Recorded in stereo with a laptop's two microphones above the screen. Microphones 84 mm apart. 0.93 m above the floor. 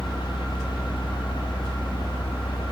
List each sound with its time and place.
0.0 s a fan: 75° left (ahead or behind), 1.4 m